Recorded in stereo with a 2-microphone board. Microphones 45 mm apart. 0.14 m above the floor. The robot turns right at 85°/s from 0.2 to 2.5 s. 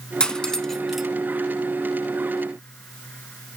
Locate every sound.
0.2 s cutlery clinking: 20° left (ahead or behind), 0.6 m; by 1.1 s 5° right (ahead or behind), 0.6 m